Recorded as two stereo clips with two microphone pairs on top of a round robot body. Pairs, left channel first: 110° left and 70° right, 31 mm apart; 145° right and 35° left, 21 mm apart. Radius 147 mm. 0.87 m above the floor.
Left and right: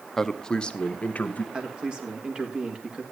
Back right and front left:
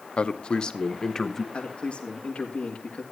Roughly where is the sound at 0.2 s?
Behind.